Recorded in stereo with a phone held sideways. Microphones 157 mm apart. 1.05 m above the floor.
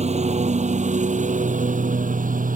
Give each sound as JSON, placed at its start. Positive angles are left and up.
{"t": 0.0, "sound": "a lawn mower", "side_deg": -45}